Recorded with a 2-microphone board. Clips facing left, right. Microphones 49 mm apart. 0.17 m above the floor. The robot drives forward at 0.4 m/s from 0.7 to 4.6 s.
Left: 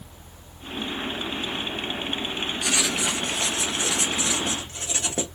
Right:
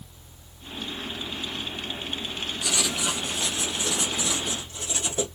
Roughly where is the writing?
Left.